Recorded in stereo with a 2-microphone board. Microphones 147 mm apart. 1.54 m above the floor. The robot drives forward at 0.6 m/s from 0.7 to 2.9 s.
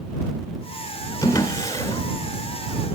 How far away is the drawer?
About 3.5 m.